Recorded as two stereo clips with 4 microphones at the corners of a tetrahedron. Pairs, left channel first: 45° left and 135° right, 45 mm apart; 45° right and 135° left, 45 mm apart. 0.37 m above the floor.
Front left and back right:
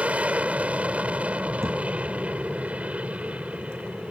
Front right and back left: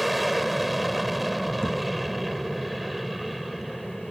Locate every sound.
0.0 s an aircraft: 140° right
1.6 s a thud: 125° right